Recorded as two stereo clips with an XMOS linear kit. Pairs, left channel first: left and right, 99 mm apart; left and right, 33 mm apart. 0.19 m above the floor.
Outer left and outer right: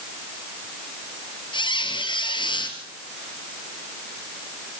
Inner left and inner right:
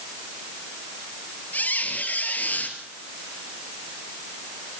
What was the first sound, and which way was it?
A squeak, 55° left (ahead or behind).